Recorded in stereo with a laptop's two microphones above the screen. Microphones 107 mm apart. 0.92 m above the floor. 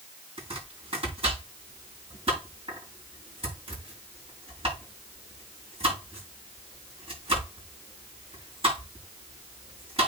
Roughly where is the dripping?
I don't hear dripping.